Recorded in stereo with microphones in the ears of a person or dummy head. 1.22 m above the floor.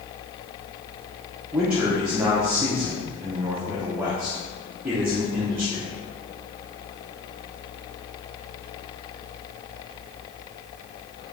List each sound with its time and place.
1.5 s a man speaking: 10° right (ahead or behind), 0.5 m